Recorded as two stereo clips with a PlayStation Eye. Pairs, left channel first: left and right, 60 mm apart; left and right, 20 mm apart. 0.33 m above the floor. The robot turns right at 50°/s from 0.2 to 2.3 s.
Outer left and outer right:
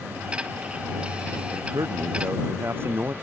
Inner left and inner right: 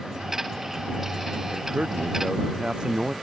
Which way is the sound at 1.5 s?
80° right.